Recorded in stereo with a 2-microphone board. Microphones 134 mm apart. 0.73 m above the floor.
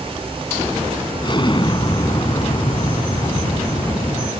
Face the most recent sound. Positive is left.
turn(degrees=35)  # may be behind; listen again after turning